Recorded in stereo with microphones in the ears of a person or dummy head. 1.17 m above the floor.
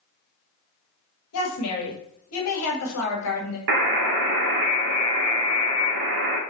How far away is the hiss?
No hiss in this recording.